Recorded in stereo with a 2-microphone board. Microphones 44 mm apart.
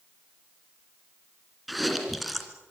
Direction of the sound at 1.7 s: Centre (ahead or behind).